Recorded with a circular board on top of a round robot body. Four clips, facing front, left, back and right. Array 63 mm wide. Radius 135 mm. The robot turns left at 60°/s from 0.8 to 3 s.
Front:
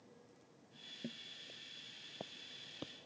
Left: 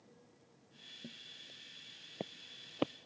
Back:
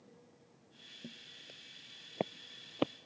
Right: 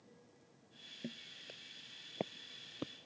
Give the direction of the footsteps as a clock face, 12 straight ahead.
2 o'clock.